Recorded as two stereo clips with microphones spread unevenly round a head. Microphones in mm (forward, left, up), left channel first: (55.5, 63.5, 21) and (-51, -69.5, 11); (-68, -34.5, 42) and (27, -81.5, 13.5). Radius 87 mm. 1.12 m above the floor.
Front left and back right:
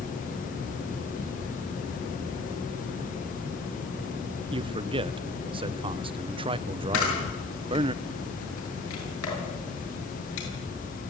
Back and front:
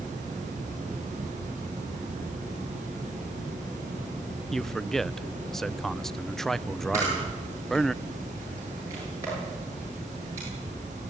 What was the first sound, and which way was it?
A man speaking, 100° right.